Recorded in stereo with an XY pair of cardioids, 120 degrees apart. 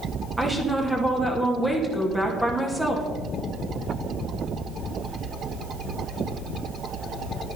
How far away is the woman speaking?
About 2.5 m.